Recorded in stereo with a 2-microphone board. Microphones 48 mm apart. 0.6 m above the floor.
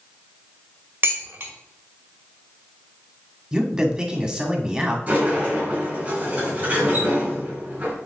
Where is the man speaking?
10° right (ahead or behind), 1.8 m.